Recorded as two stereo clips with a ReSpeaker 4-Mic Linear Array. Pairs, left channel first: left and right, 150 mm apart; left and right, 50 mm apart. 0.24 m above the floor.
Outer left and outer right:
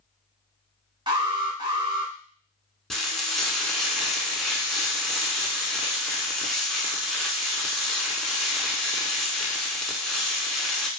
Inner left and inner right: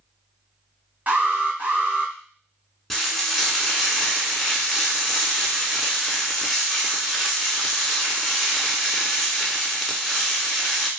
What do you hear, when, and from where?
1.1 s an alarm: 35° right (ahead or behind), 1.0 m
2.9 s frying: 5° left (ahead or behind), 0.7 m